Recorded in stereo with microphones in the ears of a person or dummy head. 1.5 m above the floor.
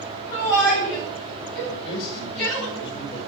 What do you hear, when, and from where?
0.3 s a shout: 20° left (ahead or behind), 9 m; by 2.6 s 15° left (ahead or behind), 11 m
1.6 s a man speaking: 30° left (ahead or behind), 7 m